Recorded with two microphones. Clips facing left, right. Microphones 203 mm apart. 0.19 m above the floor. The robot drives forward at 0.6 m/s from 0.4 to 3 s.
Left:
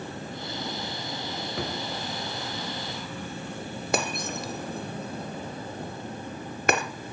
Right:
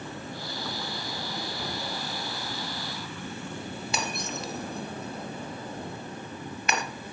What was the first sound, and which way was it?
A drawer, 85° left.